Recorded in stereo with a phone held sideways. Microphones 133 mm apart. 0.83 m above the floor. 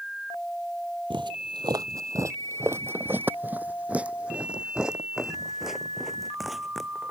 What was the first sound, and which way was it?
Footsteps, 40° right (ahead or behind).